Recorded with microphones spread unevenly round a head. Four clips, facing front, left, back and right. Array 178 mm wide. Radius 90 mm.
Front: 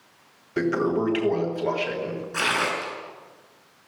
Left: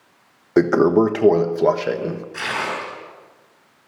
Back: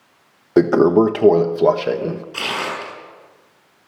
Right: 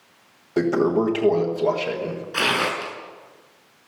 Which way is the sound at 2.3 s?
100° right.